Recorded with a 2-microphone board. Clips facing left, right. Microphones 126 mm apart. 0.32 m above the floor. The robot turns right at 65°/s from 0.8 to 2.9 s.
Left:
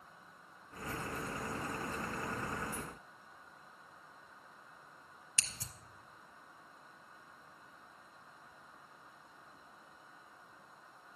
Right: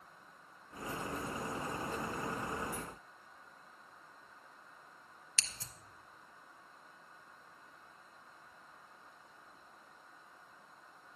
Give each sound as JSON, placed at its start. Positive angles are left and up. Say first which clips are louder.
{"t": 5.4, "sound": "scissors", "louder": "even", "side_deg": 15, "distance_m": 0.7}